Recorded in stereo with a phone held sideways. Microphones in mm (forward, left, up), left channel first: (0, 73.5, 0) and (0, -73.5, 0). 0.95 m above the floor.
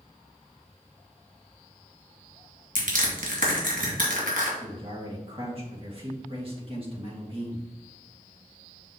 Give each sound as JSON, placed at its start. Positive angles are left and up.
{"t": 2.8, "sound": "crushing", "side_deg": -75, "distance_m": 2.0}
{"t": 4.6, "sound": "a man speaking", "side_deg": -40, "distance_m": 1.8}